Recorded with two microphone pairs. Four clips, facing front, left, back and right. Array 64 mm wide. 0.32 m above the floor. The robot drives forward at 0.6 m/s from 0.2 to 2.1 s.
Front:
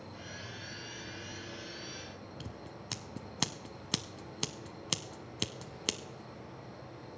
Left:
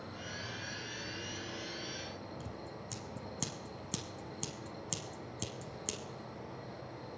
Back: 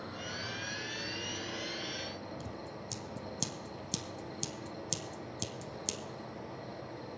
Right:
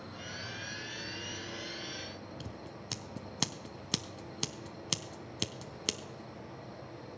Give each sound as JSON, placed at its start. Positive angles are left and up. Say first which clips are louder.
{"t": 0.0, "sound": "an insect", "louder": "even, back 5 dB", "azimuth_deg": -175, "distance_m": 1.5}
{"t": 2.4, "sound": "scissors", "louder": "even, back 3 dB", "azimuth_deg": -35, "distance_m": 0.8}